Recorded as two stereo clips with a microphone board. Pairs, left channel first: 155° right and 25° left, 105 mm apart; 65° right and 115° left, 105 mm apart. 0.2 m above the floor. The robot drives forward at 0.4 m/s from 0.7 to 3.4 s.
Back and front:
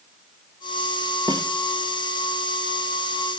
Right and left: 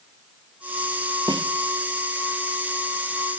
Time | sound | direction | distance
1.3 | a snare drum | 65° left | 1.0 m